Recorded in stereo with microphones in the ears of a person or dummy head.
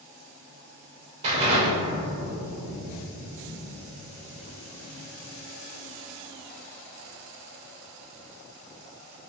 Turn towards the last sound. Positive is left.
turn(degrees=-30)  # may be behind; listen again after turning